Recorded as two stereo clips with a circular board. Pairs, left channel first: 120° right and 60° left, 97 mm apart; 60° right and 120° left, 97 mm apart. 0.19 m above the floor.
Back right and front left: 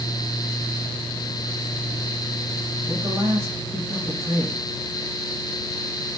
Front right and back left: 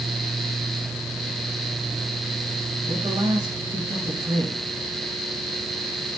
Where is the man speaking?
115° left, 6 m.